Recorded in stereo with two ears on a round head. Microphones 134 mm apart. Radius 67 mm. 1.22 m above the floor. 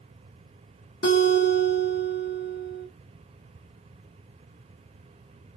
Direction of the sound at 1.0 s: 60° left (ahead or behind).